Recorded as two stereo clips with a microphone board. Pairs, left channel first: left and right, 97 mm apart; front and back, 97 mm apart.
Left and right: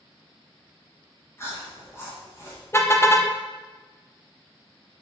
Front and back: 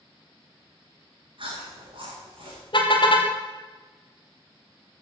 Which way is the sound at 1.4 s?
155° left.